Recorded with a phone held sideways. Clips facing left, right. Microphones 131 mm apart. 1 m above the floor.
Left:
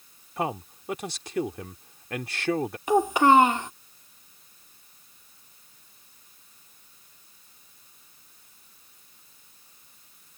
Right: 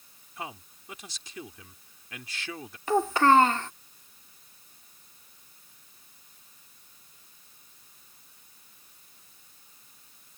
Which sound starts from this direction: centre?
A child speaking, at 2.9 s.